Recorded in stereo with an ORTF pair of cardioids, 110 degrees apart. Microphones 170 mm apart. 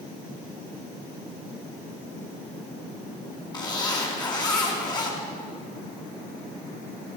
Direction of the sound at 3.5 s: 25° left.